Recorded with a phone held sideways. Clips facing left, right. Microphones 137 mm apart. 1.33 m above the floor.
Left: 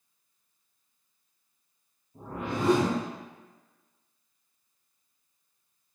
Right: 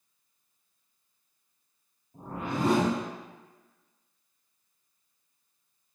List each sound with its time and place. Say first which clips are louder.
2.1 s a whoosh: even; 45° right (ahead or behind), 1.8 m